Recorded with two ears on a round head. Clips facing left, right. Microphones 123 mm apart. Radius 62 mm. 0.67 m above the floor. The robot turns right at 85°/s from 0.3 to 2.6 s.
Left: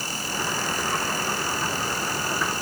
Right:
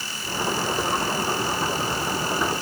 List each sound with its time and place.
Only background noise.